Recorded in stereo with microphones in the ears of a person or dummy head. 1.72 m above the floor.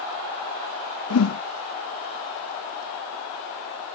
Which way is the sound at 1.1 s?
85° left.